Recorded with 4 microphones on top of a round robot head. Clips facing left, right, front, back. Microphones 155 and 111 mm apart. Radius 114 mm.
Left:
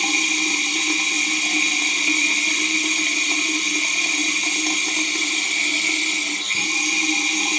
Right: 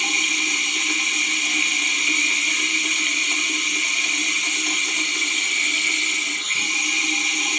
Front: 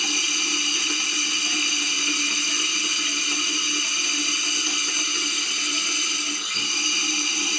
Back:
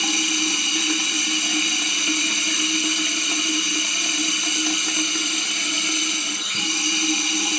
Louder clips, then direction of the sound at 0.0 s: Left 5 dB, back 6 dB; 145° left.